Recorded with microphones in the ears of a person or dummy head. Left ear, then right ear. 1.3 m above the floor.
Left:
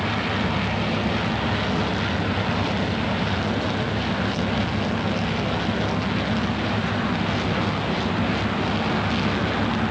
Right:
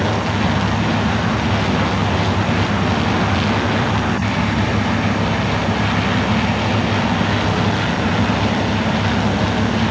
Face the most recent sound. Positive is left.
turn(degrees=-50)  # may be behind; listen again after turning